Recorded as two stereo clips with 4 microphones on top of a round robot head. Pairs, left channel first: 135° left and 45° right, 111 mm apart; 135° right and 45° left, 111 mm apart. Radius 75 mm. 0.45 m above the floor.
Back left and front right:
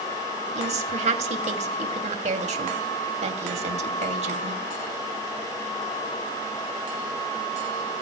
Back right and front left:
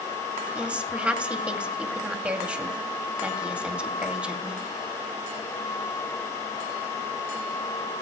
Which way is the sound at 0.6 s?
35° right.